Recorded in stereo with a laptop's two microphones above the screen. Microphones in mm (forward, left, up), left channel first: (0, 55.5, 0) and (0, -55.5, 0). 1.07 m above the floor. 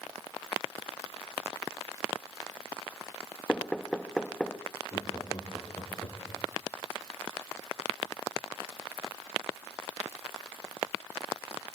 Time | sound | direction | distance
3.5 | knocking | 10° left (ahead or behind) | 1.1 m
4.9 | laughter | 35° left (ahead or behind) | 2.5 m